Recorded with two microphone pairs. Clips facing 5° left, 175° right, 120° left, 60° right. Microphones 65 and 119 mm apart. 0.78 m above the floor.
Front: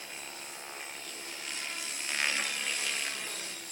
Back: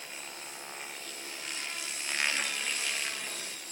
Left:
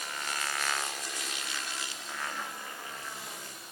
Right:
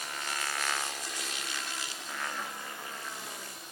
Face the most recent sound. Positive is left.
No sound to turn to.